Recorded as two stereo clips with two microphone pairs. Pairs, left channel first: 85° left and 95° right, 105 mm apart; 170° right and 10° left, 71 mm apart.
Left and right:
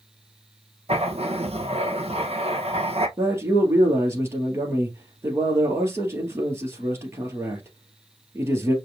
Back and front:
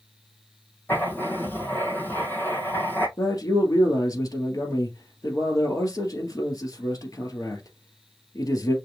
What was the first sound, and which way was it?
Writing, 110° right.